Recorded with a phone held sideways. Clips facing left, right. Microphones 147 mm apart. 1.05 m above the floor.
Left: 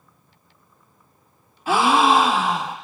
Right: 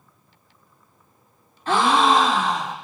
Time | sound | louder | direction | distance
1.7 | a gasp | left 1 dB | 10° left (ahead or behind) | 0.7 m